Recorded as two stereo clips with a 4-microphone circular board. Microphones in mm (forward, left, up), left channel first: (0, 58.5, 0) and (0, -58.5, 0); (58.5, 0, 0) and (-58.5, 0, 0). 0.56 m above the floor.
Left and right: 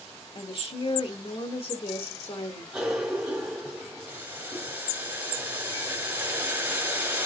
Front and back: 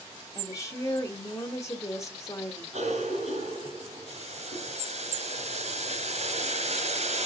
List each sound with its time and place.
0.3 s a woman speaking: 60° left, 2.5 m
2.7 s a cough: 175° right, 3.5 m
4.1 s boiling: 165° right, 2.5 m